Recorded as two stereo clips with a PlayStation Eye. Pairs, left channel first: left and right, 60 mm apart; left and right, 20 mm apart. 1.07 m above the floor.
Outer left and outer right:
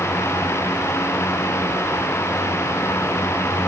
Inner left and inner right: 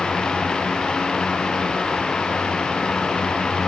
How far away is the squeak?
No squeak in this recording.